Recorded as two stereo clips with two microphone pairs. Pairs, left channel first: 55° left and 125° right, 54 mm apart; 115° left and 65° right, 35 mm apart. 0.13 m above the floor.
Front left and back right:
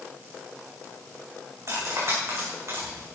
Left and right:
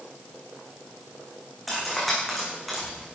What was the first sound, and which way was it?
Cutlery clinking, 155° right.